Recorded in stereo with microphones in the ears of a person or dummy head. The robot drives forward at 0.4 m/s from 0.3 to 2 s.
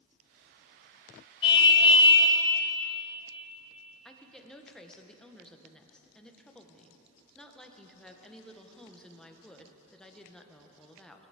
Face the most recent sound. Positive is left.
turn(degrees=5)  # may be behind; listen again after turning